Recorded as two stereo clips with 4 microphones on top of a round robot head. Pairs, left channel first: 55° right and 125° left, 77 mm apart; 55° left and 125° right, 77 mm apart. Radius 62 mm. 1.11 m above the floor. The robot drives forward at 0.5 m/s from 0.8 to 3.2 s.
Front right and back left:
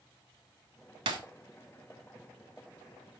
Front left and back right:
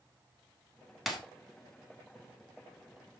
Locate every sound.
1.1 s breaking glass: 145° left, 1.3 m; by 1.2 s 150° left, 1.3 m